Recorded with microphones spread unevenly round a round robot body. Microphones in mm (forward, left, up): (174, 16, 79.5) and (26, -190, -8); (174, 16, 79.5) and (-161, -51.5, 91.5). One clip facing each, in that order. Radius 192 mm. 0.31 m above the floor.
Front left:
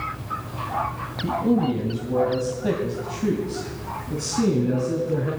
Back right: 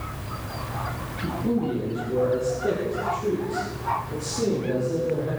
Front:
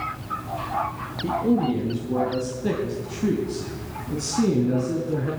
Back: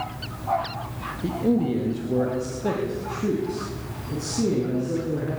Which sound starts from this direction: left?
A man speaking, at 1.2 s.